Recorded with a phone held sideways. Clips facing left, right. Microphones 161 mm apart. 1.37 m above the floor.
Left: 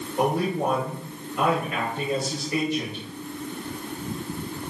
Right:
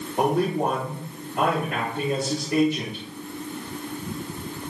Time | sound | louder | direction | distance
0.2 | a man speaking | right 2 dB | 70° right (ahead or behind) | 4.5 m